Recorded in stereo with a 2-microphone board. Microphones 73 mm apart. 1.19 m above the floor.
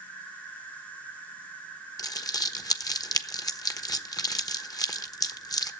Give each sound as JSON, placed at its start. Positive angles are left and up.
{"t": 0.0, "sound": "an insect", "side_deg": 20, "distance_m": 6.5}
{"t": 2.0, "sound": "crumpling", "side_deg": 60, "distance_m": 1.2}